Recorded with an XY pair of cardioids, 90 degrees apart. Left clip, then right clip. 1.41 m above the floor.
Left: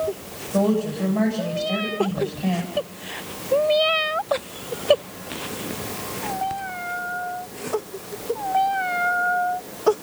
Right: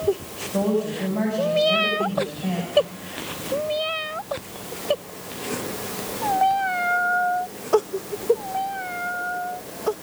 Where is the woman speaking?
20° left, 8 m.